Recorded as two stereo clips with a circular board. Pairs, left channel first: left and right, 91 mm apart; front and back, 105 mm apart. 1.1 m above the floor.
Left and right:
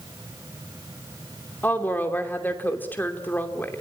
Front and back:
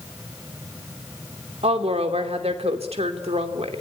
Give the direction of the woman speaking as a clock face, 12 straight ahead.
7 o'clock.